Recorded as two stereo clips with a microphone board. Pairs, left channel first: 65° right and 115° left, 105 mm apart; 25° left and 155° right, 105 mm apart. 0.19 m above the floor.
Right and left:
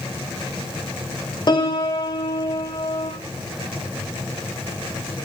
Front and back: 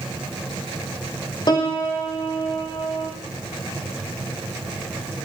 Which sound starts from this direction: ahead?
A piano, at 1.5 s.